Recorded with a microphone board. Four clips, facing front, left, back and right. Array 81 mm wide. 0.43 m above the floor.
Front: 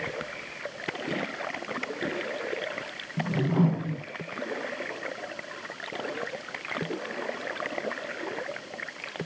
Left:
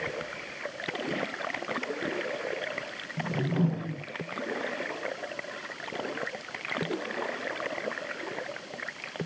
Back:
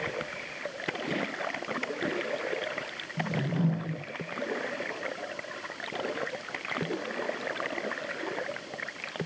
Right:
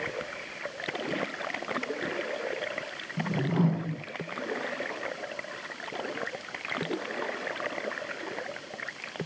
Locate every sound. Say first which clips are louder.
3.2 s a whoosh: right 1 dB, front 5 dB; 30° right, 1.6 m